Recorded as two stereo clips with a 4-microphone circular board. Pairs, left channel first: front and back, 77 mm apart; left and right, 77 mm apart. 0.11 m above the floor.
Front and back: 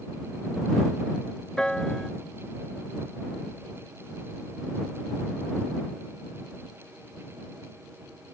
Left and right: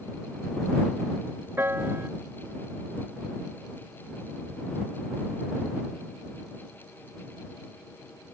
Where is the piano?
75° right.